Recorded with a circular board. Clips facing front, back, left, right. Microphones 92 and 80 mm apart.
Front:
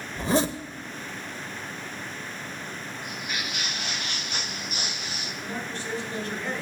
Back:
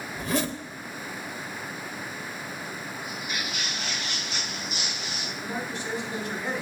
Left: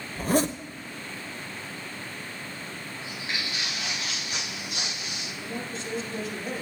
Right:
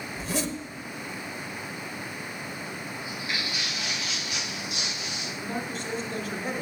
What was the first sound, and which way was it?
A zipper, 55° left.